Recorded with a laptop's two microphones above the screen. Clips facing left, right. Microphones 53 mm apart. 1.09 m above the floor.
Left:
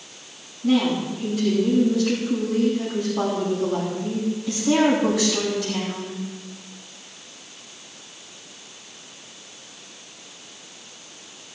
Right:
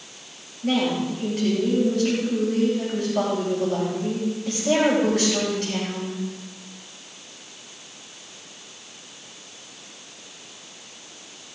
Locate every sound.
0.6 s a woman speaking: 55° right (ahead or behind), 5 m